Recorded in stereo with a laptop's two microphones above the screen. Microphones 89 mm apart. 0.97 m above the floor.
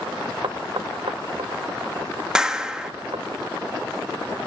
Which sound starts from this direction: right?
Knocking, at 0.4 s.